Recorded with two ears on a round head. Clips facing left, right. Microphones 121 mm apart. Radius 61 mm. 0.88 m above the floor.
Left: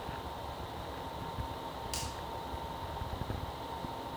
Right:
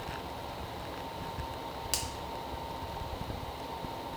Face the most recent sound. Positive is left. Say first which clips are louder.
# right 2 dB
turn(degrees=-65)  # may be behind; listen again after turning